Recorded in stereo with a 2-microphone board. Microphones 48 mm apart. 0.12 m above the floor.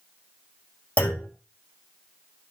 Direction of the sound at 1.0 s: 30° left (ahead or behind).